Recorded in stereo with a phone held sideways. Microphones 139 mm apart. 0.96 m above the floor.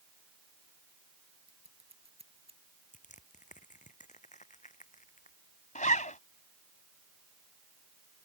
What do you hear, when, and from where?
1.5 s scissors: 50° right (ahead or behind)
2.9 s crushing: 70° left (ahead or behind)
5.8 s a zipper: 70° left (ahead or behind)